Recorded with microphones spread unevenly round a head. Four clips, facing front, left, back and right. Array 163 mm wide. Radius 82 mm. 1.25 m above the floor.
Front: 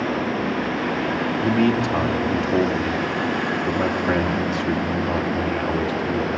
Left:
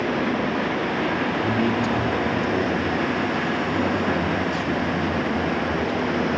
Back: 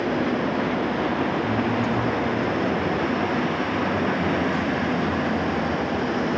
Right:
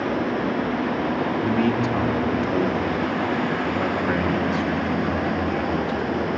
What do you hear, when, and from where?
1.4 s a man speaking: 15° right, 3 m